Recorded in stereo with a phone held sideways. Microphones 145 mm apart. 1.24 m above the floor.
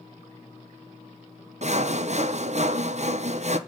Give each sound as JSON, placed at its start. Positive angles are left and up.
{"t": 1.6, "sound": "sawing", "side_deg": -55, "distance_m": 0.5}